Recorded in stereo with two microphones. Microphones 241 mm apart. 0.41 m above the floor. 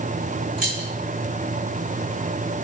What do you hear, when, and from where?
0.6 s keys jangling: 65° right (ahead or behind), 1.4 m